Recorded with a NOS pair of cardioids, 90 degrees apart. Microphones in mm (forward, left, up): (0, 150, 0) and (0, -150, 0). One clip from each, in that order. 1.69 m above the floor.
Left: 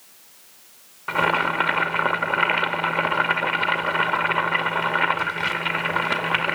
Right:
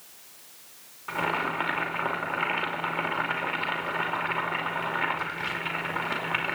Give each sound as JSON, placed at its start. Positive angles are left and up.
{"t": 1.1, "sound": "boiling", "azimuth_deg": 50, "distance_m": 2.5}